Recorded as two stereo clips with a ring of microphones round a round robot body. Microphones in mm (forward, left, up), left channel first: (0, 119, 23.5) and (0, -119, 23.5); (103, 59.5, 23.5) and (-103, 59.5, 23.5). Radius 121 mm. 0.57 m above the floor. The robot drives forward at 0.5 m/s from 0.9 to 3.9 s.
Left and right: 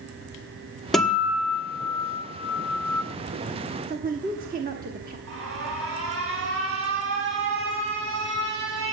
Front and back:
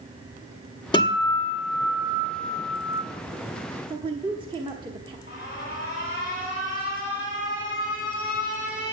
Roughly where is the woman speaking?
Behind right.